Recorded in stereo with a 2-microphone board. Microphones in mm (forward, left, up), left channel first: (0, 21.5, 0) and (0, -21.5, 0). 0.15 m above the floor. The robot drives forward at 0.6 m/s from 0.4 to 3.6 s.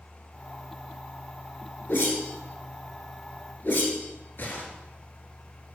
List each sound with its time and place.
1.9 s a whoosh: 55° left (ahead or behind), 1.5 m